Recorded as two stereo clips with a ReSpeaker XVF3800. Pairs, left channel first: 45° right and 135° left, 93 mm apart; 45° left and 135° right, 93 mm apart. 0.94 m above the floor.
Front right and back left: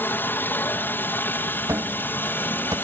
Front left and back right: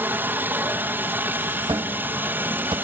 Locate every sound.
0.0 s a helicopter: 90° right
1.7 s a cupboard door: 170° right